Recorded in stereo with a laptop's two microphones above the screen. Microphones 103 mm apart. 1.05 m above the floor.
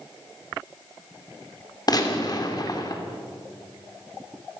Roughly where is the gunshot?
Left.